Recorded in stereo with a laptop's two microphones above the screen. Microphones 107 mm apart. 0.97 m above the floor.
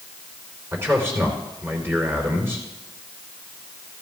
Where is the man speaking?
25° right (ahead or behind), 3.5 m.